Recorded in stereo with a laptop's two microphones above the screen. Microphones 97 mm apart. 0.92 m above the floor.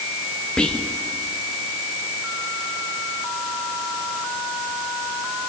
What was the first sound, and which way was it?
Whispering, 10° left (ahead or behind).